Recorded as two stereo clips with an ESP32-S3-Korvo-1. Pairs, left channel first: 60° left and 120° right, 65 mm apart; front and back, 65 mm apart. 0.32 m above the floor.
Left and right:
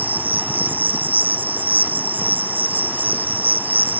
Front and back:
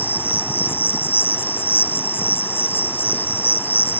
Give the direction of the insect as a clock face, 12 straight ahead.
2 o'clock.